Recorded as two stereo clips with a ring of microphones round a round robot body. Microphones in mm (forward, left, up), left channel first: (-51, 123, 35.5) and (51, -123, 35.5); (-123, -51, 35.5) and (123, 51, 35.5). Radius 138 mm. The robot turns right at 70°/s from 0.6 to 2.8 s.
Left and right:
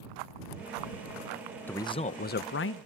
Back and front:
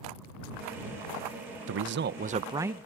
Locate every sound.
1.7 s a man speaking: 30° left; by 2.9 s 110° left